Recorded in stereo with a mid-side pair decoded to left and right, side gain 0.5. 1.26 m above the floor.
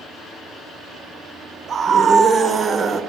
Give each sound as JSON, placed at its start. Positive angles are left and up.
{"t": 1.7, "sound": "a scream", "azimuth_deg": -45, "distance_m": 1.0}